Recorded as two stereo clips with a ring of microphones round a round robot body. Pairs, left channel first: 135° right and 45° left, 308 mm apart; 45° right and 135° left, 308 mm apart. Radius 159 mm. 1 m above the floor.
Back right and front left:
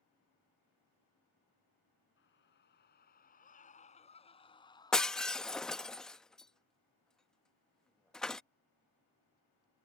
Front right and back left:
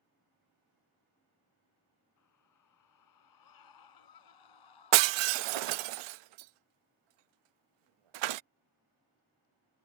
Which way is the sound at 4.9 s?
135° left.